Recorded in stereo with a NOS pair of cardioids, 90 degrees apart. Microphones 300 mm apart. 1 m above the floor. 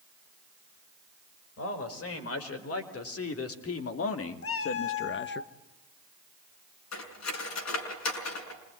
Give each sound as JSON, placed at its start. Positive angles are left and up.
{"t": 1.6, "sound": "a man speaking", "azimuth_deg": 50, "distance_m": 5.5}
{"t": 4.4, "sound": "a cat meowing", "azimuth_deg": 45, "distance_m": 1.2}
{"t": 6.9, "sound": "cutlery clinking", "azimuth_deg": 65, "distance_m": 6.0}